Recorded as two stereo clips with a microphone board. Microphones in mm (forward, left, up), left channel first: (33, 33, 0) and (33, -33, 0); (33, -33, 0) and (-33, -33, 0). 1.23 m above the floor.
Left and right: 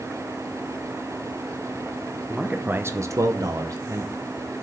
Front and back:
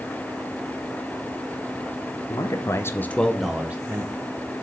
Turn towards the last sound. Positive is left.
turn(degrees=-135)